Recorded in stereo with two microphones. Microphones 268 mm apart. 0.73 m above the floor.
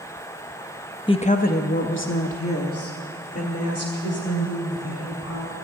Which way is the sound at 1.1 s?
20° left (ahead or behind).